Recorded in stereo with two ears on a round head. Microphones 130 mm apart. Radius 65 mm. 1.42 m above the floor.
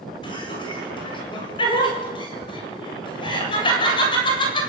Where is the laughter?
35° left (ahead or behind), 8 m.